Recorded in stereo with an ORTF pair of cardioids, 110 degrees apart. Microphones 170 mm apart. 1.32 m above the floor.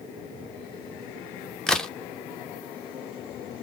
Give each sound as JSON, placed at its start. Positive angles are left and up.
{"t": 1.7, "sound": "a crack", "azimuth_deg": 5, "distance_m": 0.8}